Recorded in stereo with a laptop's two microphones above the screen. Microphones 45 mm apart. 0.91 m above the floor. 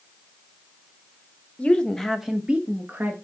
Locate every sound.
1.6 s a woman speaking: 30° left (ahead or behind), 1.1 m; by 3.2 s 45° right (ahead or behind), 1.3 m